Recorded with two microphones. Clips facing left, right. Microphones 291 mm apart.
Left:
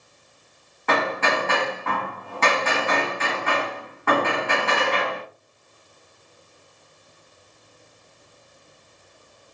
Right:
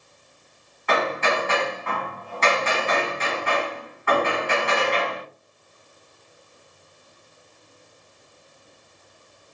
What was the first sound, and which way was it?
Hammering, 60° left (ahead or behind).